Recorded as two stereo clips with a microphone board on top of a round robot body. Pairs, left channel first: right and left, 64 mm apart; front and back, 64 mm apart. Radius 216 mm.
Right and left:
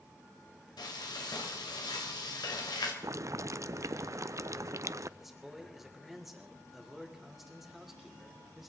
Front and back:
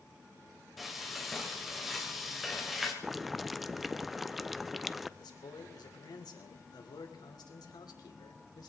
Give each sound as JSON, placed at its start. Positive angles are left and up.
{"t": 0.8, "sound": "frying", "azimuth_deg": -90, "distance_m": 2.5}
{"t": 3.0, "sound": "boiling", "azimuth_deg": 95, "distance_m": 0.8}
{"t": 5.2, "sound": "a man speaking", "azimuth_deg": 5, "distance_m": 3.0}